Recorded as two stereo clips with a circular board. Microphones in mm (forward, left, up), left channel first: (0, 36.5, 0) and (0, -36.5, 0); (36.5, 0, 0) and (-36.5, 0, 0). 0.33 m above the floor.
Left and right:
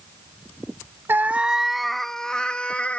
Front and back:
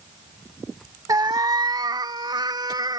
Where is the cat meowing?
150° right; by 3.0 s 165° left.